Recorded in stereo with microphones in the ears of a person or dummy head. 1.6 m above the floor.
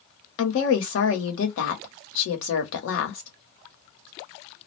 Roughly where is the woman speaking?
Left.